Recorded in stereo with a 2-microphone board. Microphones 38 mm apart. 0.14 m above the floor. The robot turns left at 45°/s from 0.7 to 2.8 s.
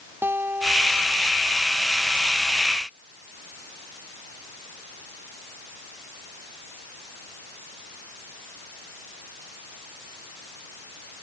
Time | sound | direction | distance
0.2 | a guitar | 110° right | ?